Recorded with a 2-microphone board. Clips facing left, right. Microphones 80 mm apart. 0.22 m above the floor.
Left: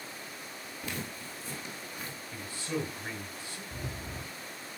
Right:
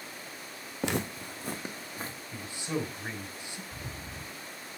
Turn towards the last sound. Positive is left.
turn(degrees=60)  # may be behind; listen again after turning